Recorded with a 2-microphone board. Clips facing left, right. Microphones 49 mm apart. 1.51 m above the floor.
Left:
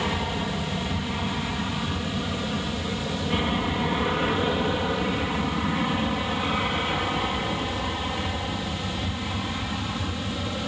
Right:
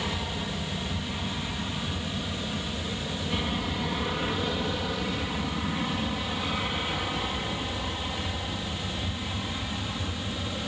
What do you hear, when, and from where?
0.0 s an aircraft: 30° left (ahead or behind); by 10.7 s 25° left (ahead or behind)